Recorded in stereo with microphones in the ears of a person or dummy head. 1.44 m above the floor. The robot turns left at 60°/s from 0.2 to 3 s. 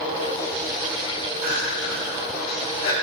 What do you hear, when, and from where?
1.4 s crying: 40° right (ahead or behind), 4 m; by 2.9 s 50° left (ahead or behind), 4 m